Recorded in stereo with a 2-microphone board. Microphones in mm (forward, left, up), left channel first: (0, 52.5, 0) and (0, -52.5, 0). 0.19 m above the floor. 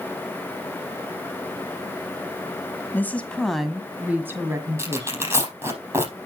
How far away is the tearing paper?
About 4.5 m.